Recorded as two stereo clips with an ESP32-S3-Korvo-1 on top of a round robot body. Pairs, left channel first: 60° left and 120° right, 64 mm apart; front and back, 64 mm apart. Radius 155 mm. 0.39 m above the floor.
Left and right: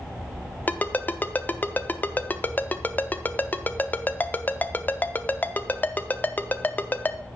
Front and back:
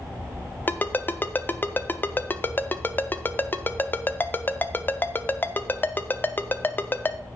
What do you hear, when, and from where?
0.7 s a ringtone: 25° left, 0.8 m